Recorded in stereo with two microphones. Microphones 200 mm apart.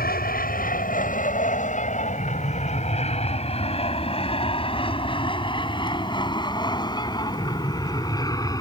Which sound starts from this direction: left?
An aircraft, at 0.0 s.